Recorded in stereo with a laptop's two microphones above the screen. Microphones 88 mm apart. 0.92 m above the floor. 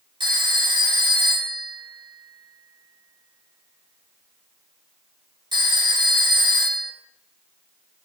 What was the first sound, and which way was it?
A phone ringing, 60° right (ahead or behind).